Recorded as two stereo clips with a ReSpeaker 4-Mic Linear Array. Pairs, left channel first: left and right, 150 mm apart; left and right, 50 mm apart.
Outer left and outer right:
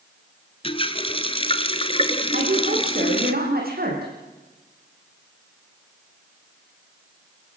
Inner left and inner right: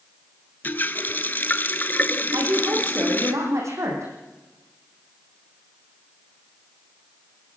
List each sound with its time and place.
0.6 s a running tap: 35° left (ahead or behind), 1.2 m
2.3 s a woman speaking: 70° right (ahead or behind), 7.5 m